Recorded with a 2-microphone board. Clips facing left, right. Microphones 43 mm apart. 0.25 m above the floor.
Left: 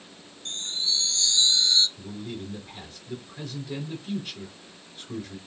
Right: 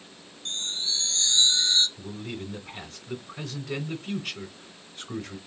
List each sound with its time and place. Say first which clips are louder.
0.5 s a chime: left 1 dB; 45° right (ahead or behind), 0.6 m
2.0 s a man speaking: even; 65° right (ahead or behind), 2 m